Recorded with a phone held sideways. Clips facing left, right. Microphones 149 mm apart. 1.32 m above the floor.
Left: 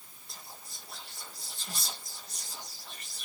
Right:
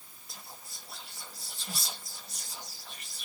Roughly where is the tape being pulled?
No tape being pulled in this recording.